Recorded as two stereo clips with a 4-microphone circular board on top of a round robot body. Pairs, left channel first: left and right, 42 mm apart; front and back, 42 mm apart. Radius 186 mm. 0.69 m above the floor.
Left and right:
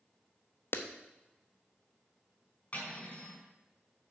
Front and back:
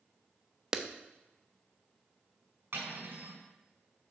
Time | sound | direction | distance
0.7 | a clap | 105° left | 1.1 m
2.7 | cutlery clinking | 145° left | 4.5 m